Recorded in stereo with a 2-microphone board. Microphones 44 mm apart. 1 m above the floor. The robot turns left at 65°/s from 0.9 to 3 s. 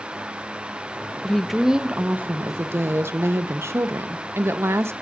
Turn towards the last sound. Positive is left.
turn(degrees=-95)